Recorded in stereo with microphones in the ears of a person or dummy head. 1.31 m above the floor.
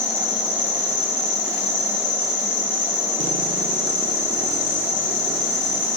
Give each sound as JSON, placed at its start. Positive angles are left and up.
{"t": 0.0, "sound": "an insect", "side_deg": 10, "distance_m": 4.5}